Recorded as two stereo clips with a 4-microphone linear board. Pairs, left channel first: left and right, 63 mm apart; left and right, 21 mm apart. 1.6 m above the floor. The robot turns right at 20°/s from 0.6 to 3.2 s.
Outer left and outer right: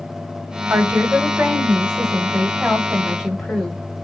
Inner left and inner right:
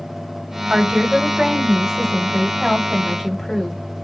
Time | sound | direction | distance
0.7 | a woman speaking | 45° right | 1.5 m